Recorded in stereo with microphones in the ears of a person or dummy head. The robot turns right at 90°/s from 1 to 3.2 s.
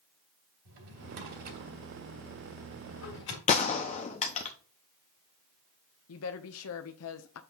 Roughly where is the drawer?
Right.